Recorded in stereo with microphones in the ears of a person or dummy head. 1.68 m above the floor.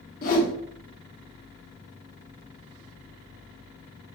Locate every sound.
0.2 s a whoosh: 50° left (ahead or behind), 0.9 m